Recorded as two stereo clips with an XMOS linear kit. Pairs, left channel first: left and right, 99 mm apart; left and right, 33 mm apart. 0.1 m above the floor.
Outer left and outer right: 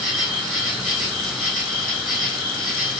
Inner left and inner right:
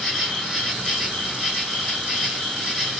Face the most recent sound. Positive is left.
turn(degrees=-5)  # may be behind; listen again after turning